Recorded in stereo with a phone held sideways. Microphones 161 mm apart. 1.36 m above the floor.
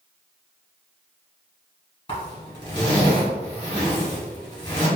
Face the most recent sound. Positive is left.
turn(degrees=30)  # may be behind; listen again after turning